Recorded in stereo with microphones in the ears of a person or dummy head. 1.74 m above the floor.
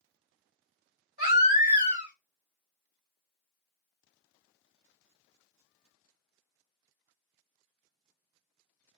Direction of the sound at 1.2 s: 45° right (ahead or behind).